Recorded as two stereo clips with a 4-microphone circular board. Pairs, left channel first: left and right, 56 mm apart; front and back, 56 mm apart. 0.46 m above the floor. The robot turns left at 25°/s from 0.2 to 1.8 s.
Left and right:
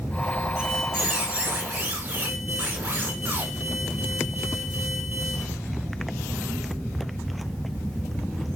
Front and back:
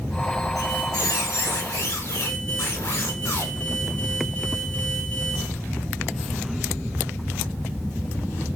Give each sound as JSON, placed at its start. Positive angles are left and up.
{"t": 0.6, "sound": "a squeak", "azimuth_deg": 0, "distance_m": 1.6}